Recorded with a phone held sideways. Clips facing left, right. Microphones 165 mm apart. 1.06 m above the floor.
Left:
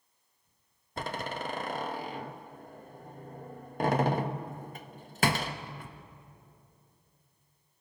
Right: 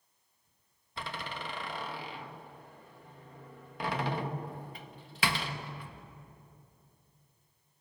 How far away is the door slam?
About 1.0 m.